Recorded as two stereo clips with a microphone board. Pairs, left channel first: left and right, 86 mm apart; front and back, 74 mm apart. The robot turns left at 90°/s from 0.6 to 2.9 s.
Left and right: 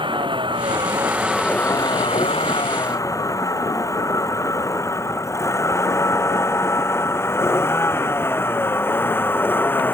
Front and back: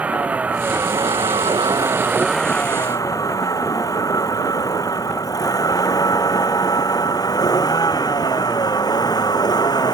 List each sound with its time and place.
0.0 s a vehicle: 110° right; by 9.9 s 25° left